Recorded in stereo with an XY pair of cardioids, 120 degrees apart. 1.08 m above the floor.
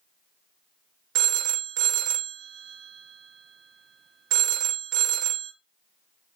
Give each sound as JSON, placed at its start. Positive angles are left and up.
{"t": 1.1, "sound": "a phone ringing", "azimuth_deg": -70, "distance_m": 0.7}